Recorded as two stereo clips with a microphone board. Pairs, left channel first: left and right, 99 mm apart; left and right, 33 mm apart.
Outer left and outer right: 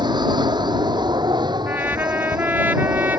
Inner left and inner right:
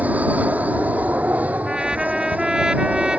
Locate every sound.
0.0 s an aircraft: 45° right (ahead or behind)
1.7 s a trumpet: 20° right (ahead or behind)